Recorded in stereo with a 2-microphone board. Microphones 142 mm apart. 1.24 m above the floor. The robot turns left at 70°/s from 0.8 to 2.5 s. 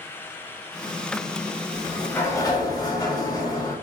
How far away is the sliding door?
About 1.2 m.